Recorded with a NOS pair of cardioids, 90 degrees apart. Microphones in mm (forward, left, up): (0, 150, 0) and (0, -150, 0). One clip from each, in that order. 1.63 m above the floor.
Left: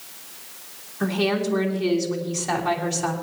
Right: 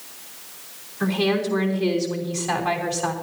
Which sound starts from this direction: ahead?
A woman speaking, at 1.0 s.